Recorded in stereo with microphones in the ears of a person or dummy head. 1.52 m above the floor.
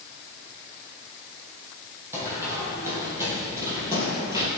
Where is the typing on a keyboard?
I don't hear typing on a keyboard.